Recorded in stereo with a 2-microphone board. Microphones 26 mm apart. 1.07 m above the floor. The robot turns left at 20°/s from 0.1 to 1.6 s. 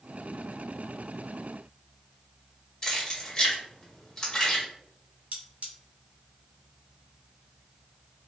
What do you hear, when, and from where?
2.8 s keys jangling: 20° left (ahead or behind), 1.5 m
5.3 s cutlery clinking: 75° right (ahead or behind), 1.2 m